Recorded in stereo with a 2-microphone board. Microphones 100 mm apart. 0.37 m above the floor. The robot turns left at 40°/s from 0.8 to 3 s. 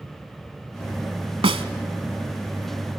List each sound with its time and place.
1.4 s a snare drum: 70° right (ahead or behind), 0.9 m; by 1.6 s 75° right (ahead or behind), 0.9 m